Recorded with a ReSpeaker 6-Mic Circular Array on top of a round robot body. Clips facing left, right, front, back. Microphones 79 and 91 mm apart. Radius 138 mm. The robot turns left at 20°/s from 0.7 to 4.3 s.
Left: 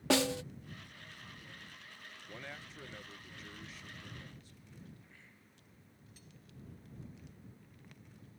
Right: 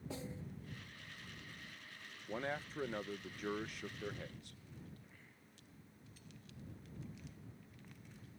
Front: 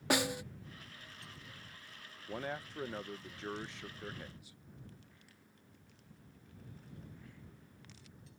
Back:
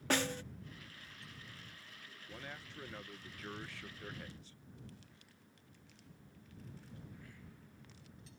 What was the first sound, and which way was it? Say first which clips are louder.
A snare drum: left 18 dB, front 2 dB; 80° left.